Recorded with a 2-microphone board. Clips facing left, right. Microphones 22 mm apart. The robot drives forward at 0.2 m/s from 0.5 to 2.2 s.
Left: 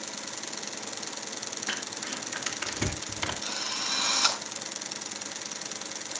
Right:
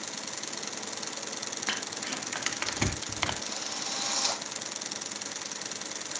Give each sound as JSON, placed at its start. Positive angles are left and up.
{"t": 1.7, "sound": "crumpling", "side_deg": -30, "distance_m": 1.9}
{"t": 3.4, "sound": "a drill", "side_deg": 55, "distance_m": 3.0}